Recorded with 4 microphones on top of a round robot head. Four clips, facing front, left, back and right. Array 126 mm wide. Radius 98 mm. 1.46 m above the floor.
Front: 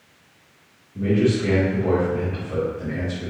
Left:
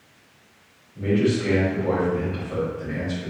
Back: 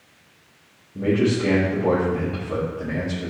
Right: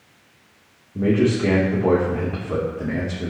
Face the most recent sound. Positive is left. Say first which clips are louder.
# right 3 dB, even
turn(degrees=-110)